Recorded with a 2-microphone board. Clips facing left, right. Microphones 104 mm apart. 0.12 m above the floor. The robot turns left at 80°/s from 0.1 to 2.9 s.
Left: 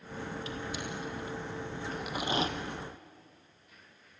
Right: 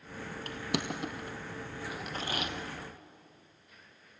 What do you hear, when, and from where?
0.5 s crushing: 50° right (ahead or behind), 1.6 m; by 2.5 s 35° left (ahead or behind), 1.6 m